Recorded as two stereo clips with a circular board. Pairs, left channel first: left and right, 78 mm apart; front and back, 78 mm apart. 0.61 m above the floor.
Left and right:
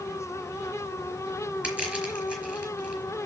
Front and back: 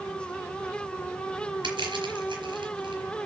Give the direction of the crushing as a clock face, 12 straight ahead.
5 o'clock.